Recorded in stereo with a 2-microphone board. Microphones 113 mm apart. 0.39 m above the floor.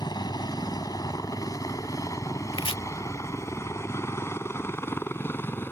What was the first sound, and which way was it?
A helicopter, 40° left (ahead or behind).